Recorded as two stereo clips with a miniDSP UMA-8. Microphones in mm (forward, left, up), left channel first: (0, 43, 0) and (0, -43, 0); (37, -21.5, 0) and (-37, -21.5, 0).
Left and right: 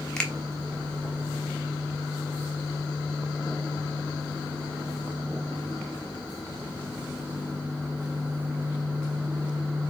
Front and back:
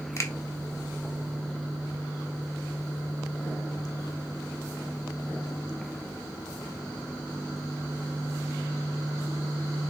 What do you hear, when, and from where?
0.2 s a finger snap: 15° left, 0.7 m